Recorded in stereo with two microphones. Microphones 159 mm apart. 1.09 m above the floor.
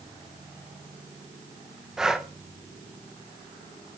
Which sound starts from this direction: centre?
Breathing, at 2.0 s.